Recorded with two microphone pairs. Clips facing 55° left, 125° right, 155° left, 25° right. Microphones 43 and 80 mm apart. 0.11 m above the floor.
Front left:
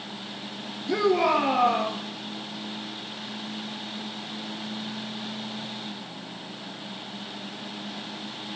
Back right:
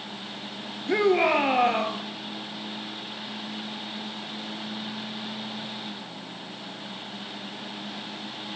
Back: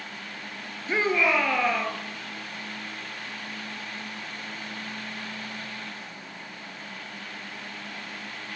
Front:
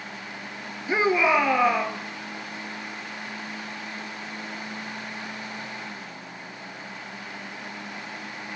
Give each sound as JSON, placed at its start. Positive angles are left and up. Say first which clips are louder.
{"t": 0.9, "sound": "a shout", "louder": "back right 1 dB, front 3 dB", "azimuth_deg": -95, "distance_m": 1.8}